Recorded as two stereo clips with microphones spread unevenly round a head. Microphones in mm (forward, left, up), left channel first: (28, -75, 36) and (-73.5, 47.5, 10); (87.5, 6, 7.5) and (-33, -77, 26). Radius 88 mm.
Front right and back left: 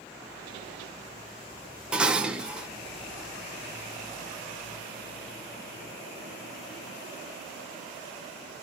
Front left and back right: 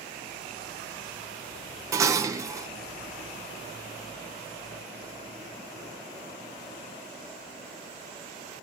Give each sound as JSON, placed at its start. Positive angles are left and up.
{"t": 1.9, "sound": "dishes clattering", "azimuth_deg": -135, "distance_m": 0.6}